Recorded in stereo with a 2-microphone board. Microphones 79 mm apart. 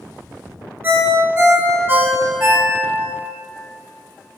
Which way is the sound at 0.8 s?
30° right (ahead or behind).